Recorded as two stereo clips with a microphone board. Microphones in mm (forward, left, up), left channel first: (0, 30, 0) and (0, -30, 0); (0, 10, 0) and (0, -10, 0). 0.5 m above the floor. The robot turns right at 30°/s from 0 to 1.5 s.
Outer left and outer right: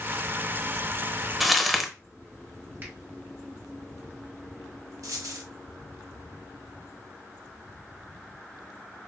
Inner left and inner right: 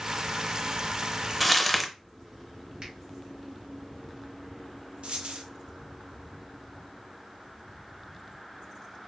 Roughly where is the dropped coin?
Right.